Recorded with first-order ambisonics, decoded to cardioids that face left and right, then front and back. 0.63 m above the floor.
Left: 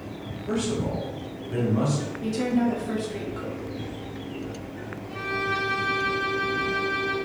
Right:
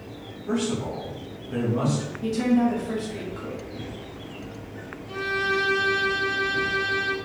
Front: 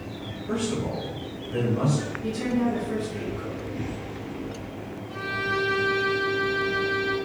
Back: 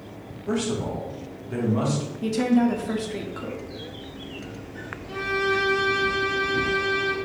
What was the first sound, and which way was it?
A man speaking, 175° left.